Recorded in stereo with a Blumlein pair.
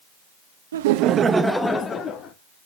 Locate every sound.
0.7 s laughter: 60° right, 1.0 m; by 2.3 s 30° left, 1.8 m